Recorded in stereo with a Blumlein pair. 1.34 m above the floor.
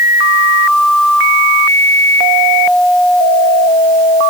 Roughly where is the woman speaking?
I don't hear a woman speaking.